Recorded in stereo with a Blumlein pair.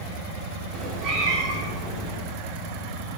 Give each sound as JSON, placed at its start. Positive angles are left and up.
{"t": 0.7, "sound": "a cat meowing", "azimuth_deg": -30, "distance_m": 2.5}